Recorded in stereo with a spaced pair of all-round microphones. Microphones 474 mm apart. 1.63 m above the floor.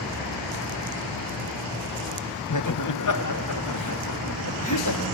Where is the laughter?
40° left (ahead or behind), 0.7 m.